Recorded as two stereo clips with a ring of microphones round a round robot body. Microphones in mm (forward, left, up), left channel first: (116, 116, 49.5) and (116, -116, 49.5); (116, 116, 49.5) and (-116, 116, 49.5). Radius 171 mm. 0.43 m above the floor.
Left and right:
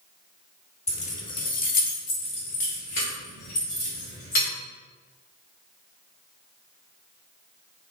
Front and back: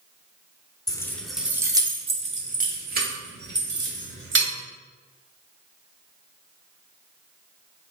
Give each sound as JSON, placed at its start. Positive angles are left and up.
{"t": 0.9, "sound": "keys jangling", "azimuth_deg": 60, "distance_m": 0.9}